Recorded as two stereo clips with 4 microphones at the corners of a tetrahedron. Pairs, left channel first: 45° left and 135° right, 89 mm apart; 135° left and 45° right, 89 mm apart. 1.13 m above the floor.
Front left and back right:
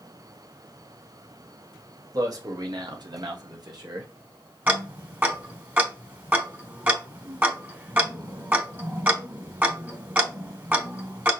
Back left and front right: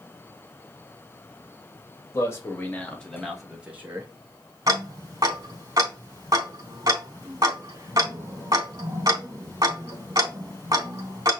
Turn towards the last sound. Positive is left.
turn(degrees=-75)